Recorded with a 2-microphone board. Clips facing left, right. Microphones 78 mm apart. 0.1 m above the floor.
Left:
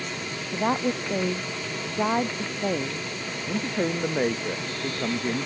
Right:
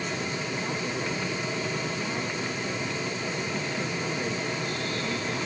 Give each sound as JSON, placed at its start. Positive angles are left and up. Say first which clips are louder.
{"t": 0.5, "sound": "a woman speaking", "louder": "left 11 dB", "side_deg": 60}
{"t": 3.5, "sound": "a man speaking", "louder": "left 4 dB", "side_deg": 45}